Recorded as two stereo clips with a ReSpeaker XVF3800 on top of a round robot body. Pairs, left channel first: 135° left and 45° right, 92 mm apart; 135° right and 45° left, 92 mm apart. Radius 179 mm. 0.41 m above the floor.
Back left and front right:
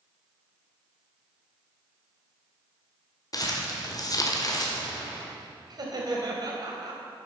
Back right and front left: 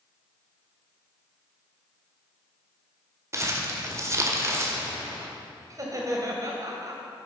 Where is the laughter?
5° right, 2.5 m.